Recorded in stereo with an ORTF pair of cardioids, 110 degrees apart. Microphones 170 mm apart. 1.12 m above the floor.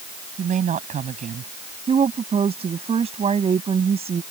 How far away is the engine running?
I don't hear an engine running.